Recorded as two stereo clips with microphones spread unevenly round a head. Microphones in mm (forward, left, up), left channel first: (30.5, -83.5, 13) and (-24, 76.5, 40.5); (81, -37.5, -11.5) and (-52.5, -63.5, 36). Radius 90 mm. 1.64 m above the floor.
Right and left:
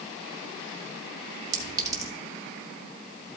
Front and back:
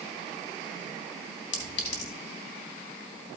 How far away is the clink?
About 1.5 m.